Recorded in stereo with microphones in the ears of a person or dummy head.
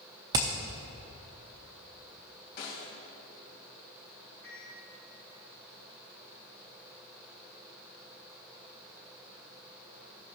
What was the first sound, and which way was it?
Hammering, 15° right (ahead or behind).